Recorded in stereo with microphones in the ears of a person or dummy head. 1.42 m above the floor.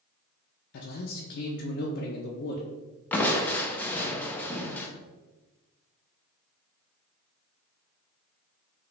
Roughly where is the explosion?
I don't hear an explosion.